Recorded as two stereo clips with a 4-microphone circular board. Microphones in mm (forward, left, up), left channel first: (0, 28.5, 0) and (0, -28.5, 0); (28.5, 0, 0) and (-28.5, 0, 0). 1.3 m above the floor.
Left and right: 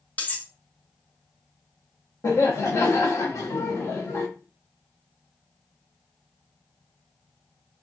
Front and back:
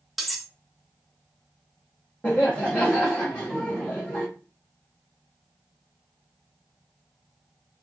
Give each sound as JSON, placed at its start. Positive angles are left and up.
{"t": 0.2, "sound": "cutlery clinking", "azimuth_deg": 90, "distance_m": 0.5}
{"t": 2.2, "sound": "laughter", "azimuth_deg": 70, "distance_m": 0.7}